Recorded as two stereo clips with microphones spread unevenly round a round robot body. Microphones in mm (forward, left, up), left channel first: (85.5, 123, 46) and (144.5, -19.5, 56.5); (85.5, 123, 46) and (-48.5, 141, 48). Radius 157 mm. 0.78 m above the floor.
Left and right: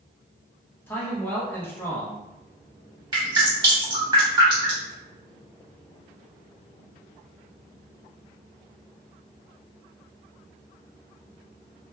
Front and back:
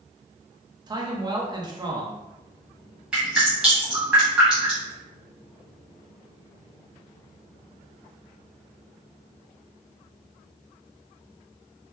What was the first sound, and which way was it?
A man speaking, 165° left.